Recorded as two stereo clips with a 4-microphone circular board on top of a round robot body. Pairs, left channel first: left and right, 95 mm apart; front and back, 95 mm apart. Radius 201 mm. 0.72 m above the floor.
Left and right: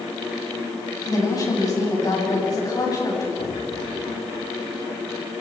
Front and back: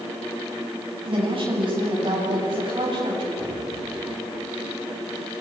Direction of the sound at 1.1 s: 145° left.